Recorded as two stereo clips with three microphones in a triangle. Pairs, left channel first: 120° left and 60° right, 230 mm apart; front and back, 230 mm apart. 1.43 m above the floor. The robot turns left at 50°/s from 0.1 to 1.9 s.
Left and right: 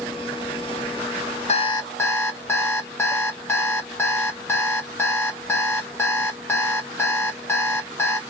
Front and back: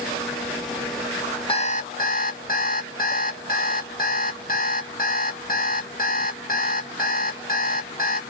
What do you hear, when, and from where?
1.5 s an alarm clock: 60° left, 1.1 m; by 8.2 s 40° left, 1.1 m